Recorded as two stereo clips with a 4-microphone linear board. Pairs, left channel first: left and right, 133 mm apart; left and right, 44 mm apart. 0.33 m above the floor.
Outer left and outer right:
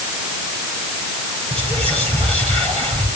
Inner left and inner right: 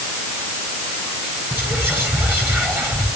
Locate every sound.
1.5 s whispering: 50° right (ahead or behind), 9 m